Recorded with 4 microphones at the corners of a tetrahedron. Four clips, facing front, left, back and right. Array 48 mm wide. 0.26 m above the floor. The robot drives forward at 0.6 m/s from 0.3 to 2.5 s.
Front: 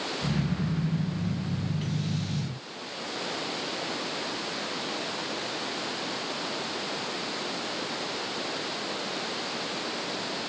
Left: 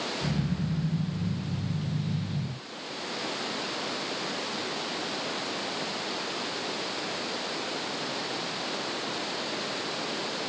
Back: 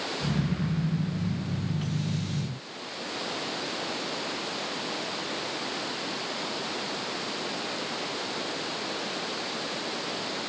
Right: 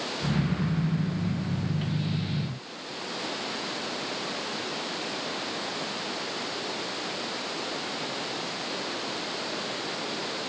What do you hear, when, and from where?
Only background noise.